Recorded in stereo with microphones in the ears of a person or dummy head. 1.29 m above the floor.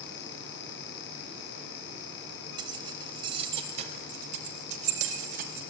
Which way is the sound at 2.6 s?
30° right (ahead or behind).